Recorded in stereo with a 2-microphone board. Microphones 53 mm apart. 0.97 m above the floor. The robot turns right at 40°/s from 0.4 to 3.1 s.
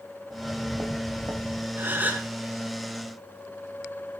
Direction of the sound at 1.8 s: 45° right (ahead or behind).